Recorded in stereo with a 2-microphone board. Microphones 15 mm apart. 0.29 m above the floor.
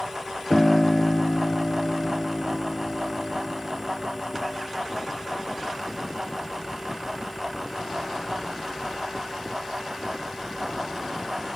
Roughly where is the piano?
Left.